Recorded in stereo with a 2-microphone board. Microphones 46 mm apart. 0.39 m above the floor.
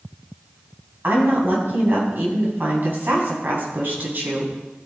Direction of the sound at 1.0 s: 50° right (ahead or behind).